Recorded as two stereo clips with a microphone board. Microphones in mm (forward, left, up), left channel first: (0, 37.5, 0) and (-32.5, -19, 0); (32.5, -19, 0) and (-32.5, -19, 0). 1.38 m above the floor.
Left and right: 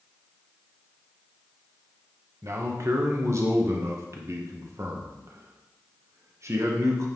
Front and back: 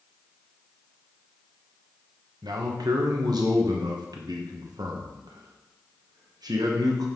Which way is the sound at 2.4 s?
165° right.